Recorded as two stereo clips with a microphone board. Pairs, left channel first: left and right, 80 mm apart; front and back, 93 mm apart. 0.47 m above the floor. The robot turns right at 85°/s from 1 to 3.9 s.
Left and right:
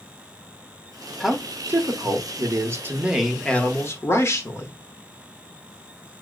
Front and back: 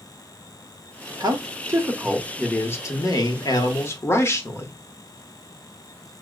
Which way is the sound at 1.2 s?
Straight behind.